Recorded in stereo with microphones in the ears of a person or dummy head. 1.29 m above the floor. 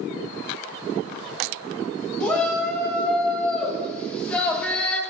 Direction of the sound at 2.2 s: 10° left (ahead or behind).